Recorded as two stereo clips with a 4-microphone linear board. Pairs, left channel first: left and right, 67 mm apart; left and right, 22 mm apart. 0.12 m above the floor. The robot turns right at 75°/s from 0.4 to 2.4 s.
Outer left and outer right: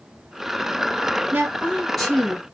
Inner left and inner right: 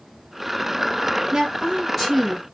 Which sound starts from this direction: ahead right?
A woman speaking, at 1.3 s.